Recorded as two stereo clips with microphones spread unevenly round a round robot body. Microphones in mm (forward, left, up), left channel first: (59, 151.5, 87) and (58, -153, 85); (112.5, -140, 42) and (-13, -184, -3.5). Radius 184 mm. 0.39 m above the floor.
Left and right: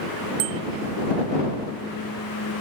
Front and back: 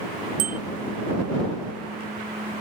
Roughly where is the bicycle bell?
Behind right.